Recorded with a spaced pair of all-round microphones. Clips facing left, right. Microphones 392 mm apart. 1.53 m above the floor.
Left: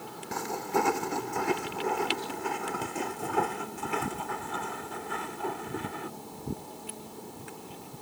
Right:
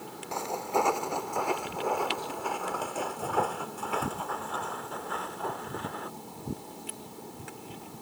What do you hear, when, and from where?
0.3 s footsteps: 30° left (ahead or behind); by 6.1 s 40° left (ahead or behind)